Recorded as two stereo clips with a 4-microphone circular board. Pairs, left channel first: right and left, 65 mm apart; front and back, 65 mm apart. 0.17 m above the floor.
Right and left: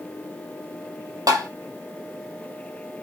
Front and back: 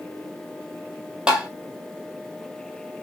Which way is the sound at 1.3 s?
110° left.